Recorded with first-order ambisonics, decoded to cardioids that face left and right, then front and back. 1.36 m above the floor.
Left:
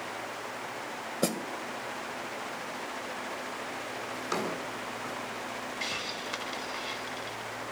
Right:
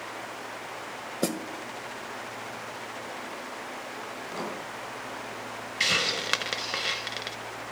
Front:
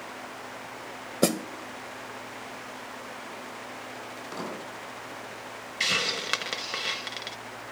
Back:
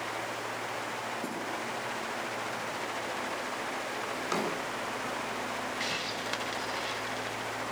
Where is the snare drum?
5° right, 1.1 m.